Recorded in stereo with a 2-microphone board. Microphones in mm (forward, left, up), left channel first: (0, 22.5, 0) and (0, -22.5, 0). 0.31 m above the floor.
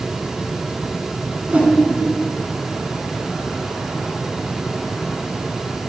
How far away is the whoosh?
About 1.7 m.